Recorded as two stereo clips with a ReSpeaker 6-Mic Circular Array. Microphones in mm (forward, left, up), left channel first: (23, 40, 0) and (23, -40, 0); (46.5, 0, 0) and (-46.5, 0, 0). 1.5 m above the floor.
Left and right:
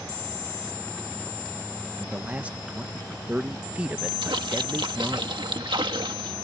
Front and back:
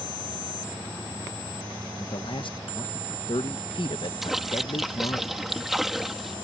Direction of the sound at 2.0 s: 20° right.